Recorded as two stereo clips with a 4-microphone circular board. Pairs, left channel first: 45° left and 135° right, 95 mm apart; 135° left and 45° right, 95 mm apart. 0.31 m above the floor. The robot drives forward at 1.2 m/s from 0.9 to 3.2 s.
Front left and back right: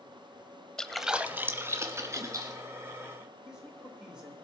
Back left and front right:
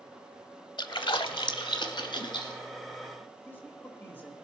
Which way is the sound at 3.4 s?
160° left.